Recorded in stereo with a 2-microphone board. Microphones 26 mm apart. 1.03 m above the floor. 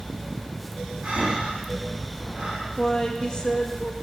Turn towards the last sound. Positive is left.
turn(degrees=30)  # may be behind; listen again after turning